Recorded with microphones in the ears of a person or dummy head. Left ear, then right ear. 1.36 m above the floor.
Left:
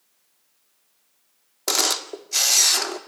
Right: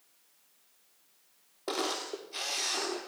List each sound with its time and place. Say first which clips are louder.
1.7 s a camera shutter: left 11 dB; 75° left (ahead or behind), 1.8 m